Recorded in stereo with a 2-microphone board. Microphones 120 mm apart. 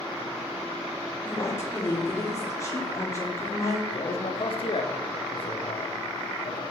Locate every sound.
1.2 s a woman speaking: 25° left (ahead or behind), 1.9 m
3.9 s a man speaking: 55° left (ahead or behind), 1.2 m